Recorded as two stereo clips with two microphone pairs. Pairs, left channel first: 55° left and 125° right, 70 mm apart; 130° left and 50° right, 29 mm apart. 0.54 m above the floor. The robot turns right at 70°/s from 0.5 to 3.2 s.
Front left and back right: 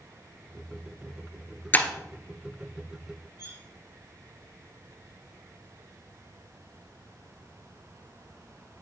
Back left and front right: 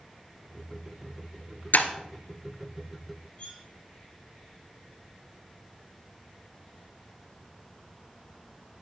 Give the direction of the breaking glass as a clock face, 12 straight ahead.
8 o'clock.